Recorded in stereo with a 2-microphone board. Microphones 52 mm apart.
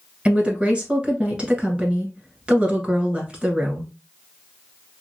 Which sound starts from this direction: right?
A woman speaking, at 0.2 s.